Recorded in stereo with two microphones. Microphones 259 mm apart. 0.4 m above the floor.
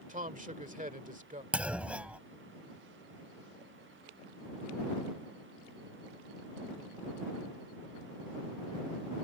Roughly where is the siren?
No siren in this recording.